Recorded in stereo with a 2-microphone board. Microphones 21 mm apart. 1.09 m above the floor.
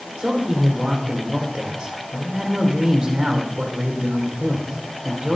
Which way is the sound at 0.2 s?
40° right (ahead or behind).